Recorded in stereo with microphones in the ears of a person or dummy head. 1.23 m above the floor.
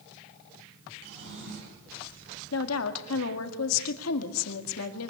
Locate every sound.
1.0 s a drawer: 60° right (ahead or behind), 6.5 m
2.5 s a woman speaking: 85° left, 1.9 m